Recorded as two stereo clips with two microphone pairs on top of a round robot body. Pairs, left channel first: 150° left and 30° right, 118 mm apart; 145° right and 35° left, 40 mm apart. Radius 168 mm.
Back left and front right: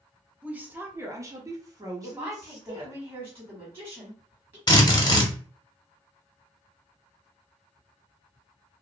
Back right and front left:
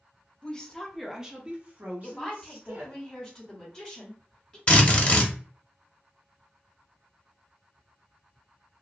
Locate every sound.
0.4 s a woman speaking: 85° right, 0.9 m; by 3.0 s 30° left, 1.7 m
2.0 s a woman speaking: 70° right, 1.3 m
4.7 s a drill: 160° left, 1.1 m